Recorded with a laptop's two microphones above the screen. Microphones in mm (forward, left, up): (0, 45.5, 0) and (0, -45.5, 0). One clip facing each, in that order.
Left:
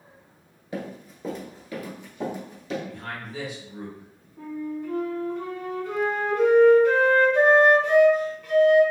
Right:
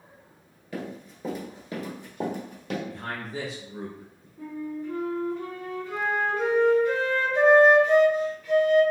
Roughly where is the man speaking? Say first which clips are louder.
Right 1 dB; right.